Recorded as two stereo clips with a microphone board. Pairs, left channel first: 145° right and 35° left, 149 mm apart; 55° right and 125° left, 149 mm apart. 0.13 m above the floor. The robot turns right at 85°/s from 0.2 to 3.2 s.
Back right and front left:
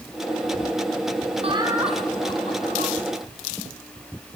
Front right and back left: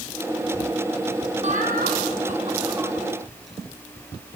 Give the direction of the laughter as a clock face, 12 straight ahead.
9 o'clock.